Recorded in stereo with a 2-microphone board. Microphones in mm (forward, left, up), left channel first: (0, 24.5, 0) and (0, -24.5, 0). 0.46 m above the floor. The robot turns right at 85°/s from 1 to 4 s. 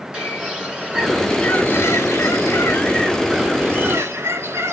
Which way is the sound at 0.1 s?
20° right.